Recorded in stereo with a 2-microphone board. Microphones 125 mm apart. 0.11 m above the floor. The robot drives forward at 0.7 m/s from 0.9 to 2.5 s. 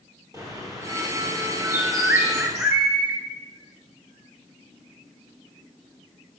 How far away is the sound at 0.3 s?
About 2.5 m.